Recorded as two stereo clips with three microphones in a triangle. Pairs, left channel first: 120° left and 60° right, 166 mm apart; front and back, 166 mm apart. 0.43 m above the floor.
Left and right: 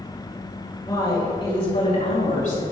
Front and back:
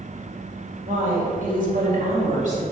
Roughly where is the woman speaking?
Behind.